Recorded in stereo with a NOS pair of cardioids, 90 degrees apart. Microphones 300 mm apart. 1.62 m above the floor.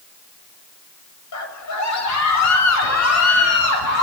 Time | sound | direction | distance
1.3 | a scream | 65° left | 10 m